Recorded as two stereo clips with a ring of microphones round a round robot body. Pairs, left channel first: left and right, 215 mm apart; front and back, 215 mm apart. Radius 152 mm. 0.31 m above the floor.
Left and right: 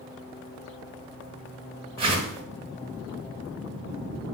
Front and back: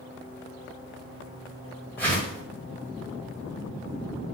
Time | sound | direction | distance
2.0 | a whoosh | 70° right | 1.6 m